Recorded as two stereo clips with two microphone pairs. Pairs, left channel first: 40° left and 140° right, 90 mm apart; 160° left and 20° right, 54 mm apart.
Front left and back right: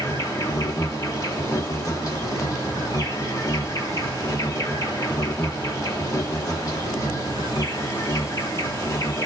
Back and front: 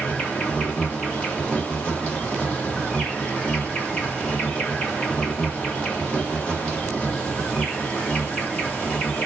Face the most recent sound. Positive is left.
turn(degrees=90)